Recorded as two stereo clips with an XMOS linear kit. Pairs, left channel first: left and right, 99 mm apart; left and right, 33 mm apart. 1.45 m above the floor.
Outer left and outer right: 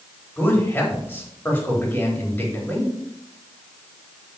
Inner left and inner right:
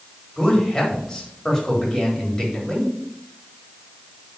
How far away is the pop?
No pop in this recording.